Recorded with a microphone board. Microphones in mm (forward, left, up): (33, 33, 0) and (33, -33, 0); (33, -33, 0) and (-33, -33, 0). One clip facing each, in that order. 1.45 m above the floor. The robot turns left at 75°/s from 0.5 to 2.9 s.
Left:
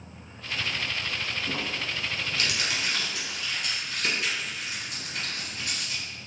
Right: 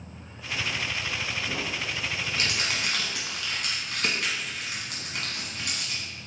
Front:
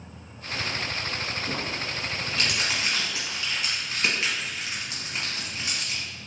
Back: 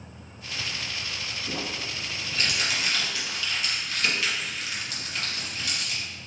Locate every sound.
1.5 s crumpling: 40° left, 1.3 m; by 6.0 s 65° right, 1.3 m